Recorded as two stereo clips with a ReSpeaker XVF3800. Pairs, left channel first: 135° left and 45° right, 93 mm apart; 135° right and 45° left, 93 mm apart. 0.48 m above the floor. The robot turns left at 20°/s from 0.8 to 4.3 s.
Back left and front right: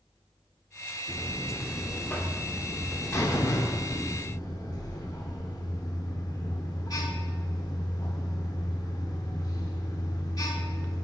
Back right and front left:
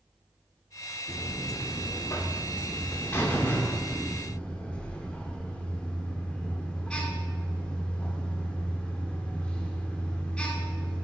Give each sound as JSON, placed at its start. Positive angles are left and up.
{"t": 1.1, "sound": "a buzzer", "azimuth_deg": -145, "distance_m": 0.7}